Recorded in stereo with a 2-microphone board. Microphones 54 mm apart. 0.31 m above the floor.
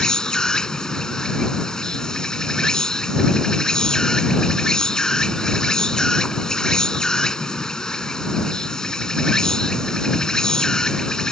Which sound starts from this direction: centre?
An insect, at 0.0 s.